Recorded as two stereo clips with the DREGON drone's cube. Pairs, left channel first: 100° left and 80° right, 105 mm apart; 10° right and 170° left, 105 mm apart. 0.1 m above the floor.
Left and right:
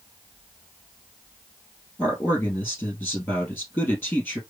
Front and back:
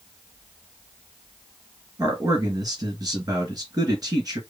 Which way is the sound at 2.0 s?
165° left.